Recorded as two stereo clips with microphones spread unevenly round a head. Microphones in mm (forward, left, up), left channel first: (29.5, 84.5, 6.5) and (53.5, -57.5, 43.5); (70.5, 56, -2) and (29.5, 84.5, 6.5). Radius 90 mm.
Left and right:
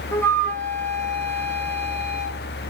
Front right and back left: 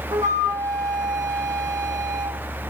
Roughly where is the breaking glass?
I don't hear breaking glass.